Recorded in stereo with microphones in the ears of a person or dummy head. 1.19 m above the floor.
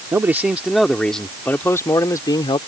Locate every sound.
0.1 s a man speaking: 5° right (ahead or behind); by 2.6 s 25° left (ahead or behind)